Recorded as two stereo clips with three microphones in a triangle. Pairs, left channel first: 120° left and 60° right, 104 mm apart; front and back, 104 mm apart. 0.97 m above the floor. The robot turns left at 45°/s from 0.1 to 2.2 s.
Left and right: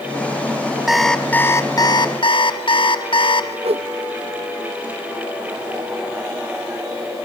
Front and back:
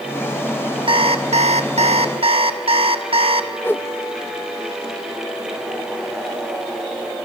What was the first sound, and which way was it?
An alarm clock, 145° right.